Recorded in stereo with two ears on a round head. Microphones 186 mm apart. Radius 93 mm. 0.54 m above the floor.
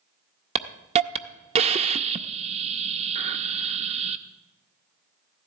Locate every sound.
0.6 s a hiss: 30° right (ahead or behind), 0.5 m